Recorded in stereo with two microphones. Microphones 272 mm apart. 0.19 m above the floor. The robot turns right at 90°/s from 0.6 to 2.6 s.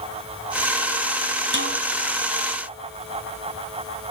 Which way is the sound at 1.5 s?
45° right (ahead or behind).